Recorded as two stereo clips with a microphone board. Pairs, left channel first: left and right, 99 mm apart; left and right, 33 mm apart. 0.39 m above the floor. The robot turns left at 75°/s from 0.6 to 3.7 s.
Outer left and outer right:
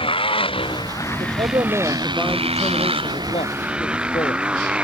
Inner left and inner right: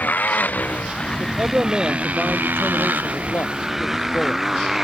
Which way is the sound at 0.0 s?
65° left.